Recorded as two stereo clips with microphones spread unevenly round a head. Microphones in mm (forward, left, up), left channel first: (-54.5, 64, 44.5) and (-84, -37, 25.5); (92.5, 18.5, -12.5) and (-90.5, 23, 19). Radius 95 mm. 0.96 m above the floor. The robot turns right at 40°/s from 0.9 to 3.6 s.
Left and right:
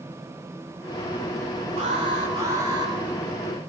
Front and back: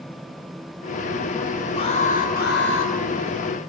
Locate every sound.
1.8 s an alarm: 65° right, 3.5 m; by 2.9 s 20° right, 3.5 m